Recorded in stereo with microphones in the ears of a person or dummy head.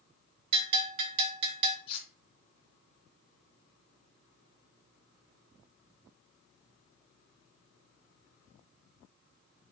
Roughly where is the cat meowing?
I don't hear a cat meowing.